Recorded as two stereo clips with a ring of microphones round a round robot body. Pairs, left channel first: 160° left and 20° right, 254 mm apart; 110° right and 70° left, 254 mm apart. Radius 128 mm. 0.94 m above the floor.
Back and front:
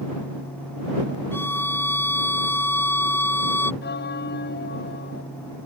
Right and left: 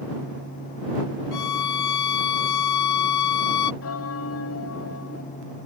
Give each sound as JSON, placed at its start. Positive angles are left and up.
{"t": 1.3, "sound": "a violin", "azimuth_deg": -120}
{"t": 3.8, "sound": "a bell", "azimuth_deg": -150}